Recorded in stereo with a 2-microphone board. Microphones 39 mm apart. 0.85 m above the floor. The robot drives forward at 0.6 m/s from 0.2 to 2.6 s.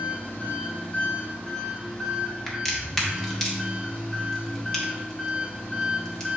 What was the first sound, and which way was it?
An engine running, 40° left (ahead or behind).